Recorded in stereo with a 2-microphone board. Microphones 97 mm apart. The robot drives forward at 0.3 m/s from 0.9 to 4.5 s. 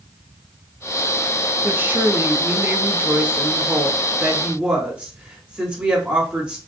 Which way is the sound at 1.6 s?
20° right (ahead or behind).